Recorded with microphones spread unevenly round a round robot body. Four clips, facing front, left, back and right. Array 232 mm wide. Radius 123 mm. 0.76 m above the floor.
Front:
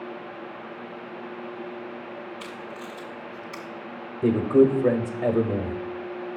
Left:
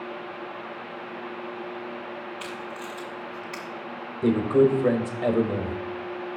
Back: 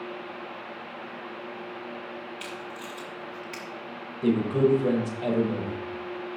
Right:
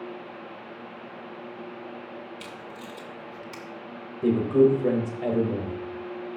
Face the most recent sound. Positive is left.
turn(degrees=30)